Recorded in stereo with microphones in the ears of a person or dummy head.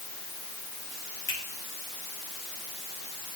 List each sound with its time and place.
1.3 s a finger snap: 20° left (ahead or behind), 4 m